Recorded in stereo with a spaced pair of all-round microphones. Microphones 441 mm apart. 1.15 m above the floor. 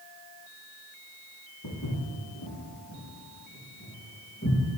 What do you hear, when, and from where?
1.6 s footsteps: 45° left (ahead or behind), 1.9 m; by 4.6 s 30° left (ahead or behind), 5 m